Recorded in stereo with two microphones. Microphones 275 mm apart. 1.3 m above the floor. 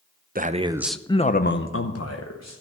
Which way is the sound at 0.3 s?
35° right (ahead or behind).